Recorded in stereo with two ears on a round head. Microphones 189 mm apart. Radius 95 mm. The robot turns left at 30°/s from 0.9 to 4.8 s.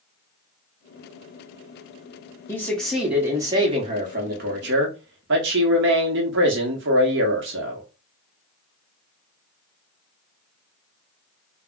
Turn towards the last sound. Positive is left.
turn(degrees=-55)